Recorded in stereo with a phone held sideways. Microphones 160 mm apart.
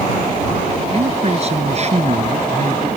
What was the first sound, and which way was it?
A man speaking, 40° right (ahead or behind).